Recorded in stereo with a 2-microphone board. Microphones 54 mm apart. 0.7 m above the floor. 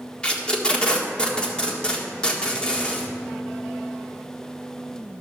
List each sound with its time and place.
0.2 s tape being pulled: 15° left (ahead or behind), 1.6 m